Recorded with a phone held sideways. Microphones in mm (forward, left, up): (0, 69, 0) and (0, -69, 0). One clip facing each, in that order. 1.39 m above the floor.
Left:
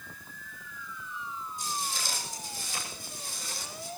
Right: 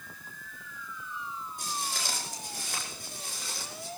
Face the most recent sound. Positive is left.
turn(degrees=-75)  # may be behind; listen again after turning